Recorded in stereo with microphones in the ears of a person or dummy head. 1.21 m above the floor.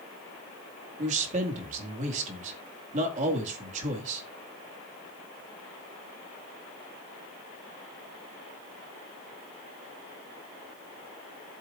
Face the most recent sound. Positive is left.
turn(degrees=-40)  # may be behind; listen again after turning